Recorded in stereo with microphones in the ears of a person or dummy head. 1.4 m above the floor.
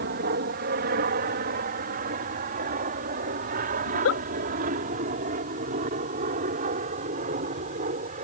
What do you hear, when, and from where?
0.0 s an aircraft: 50° right (ahead or behind); by 8.3 s 40° right (ahead or behind)
3.9 s a giggle: 75° left (ahead or behind)